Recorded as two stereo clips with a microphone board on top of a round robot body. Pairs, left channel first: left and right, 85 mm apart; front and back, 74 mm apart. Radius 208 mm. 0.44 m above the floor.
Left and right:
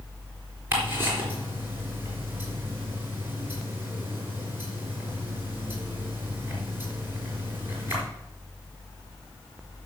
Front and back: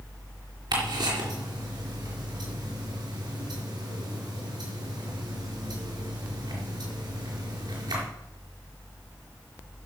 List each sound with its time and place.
0.7 s ticking: 155° right, 4 m